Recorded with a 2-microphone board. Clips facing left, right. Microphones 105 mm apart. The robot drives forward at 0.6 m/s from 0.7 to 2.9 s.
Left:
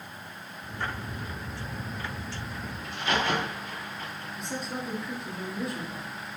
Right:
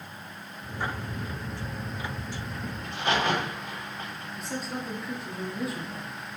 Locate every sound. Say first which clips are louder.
2.8 s a crack: right 2 dB; 80° right, 1.7 m
4.4 s a woman speaking: right 1 dB; 5° right (ahead or behind), 0.8 m